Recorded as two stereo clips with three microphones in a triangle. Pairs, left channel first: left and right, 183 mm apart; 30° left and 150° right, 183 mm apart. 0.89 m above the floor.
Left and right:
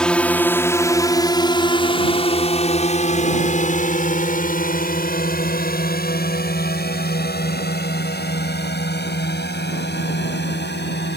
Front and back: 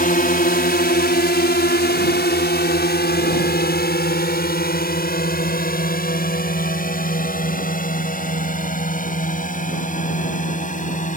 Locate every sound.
0.0 s a drone: 5° left; by 11.2 s 75° left